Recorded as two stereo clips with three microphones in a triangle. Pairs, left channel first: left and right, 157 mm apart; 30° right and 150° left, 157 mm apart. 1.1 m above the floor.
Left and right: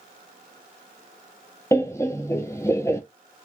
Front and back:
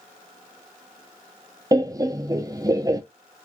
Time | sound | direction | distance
1.7 | laughter | 130° left | 0.6 m